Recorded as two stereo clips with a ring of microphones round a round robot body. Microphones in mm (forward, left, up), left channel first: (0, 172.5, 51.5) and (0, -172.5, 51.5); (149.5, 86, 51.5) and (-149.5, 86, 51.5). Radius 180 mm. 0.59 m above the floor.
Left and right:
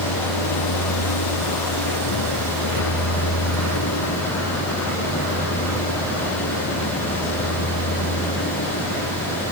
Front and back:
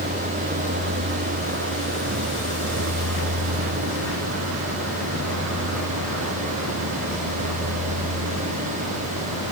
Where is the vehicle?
120° left; by 9.5 s 150° left.